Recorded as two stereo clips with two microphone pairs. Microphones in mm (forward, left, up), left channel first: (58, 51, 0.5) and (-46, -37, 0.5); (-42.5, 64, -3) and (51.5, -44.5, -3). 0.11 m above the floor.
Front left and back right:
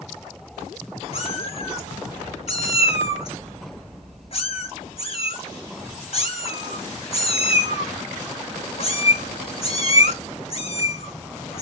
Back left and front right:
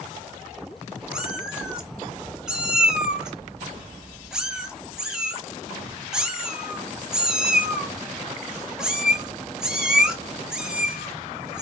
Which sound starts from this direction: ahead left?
A cat meowing, at 1.1 s.